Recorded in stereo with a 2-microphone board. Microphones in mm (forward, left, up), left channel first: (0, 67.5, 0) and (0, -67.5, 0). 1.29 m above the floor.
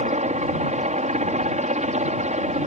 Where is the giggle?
No giggle in this recording.